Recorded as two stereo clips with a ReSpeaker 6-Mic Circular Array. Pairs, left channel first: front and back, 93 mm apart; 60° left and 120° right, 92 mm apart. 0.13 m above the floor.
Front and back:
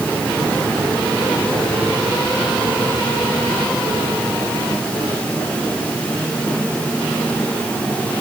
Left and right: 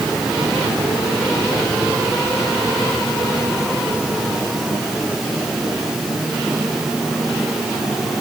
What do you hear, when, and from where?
Only background noise.